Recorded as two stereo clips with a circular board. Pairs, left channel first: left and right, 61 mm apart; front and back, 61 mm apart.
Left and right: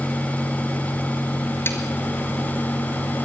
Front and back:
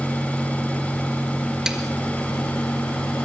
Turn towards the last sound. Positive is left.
turn(degrees=105)